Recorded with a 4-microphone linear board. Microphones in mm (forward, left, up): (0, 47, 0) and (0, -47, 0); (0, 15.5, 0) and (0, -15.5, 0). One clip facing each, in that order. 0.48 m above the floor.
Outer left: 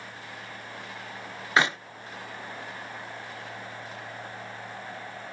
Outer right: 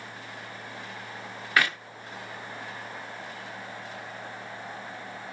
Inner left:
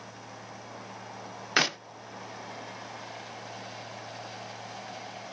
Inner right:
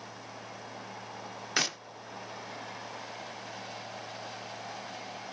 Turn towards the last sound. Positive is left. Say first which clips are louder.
# outer left 2 dB, inner left 5 dB
turn(degrees=20)  # may be behind; listen again after turning